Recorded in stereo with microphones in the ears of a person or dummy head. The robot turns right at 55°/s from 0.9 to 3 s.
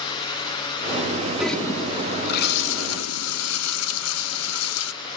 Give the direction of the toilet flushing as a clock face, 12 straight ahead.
12 o'clock.